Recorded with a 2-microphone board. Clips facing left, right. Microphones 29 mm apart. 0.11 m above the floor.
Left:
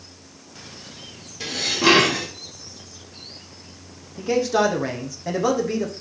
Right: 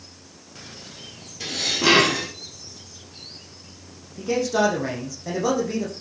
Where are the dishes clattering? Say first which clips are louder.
Left 2 dB; 5° left (ahead or behind), 6.5 m.